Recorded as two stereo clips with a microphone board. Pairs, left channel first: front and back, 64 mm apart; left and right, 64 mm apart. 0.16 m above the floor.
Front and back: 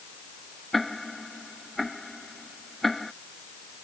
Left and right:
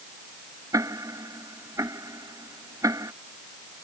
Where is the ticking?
90° right.